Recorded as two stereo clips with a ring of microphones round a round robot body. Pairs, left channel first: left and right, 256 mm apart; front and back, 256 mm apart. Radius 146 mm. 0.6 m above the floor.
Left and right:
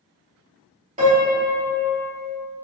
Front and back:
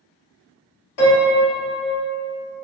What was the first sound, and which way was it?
A piano, 25° right.